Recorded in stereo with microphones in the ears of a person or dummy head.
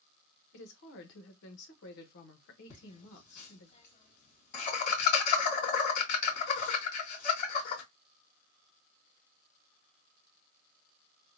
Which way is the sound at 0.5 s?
70° left (ahead or behind).